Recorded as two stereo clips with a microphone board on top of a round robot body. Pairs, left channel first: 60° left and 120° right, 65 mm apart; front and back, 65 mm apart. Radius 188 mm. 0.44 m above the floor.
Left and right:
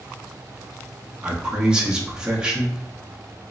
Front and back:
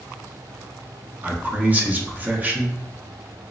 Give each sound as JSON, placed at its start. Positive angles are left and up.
{"t": 1.2, "sound": "a man speaking", "azimuth_deg": 180, "distance_m": 0.9}